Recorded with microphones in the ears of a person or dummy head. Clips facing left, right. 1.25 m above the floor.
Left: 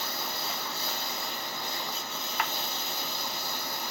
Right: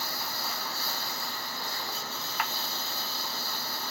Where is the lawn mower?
25° left (ahead or behind).